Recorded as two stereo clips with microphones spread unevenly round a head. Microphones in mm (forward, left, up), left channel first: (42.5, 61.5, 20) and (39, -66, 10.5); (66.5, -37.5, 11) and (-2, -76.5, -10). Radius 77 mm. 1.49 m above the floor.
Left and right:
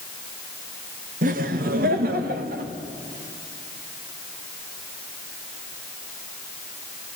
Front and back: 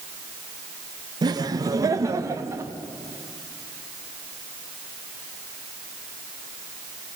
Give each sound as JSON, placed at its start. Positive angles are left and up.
{"t": 1.2, "sound": "laughter", "azimuth_deg": -120, "distance_m": 1.7}